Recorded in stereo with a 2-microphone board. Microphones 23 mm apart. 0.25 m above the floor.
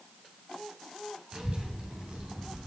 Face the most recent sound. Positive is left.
turn(degrees=-40)  # may be behind; listen again after turning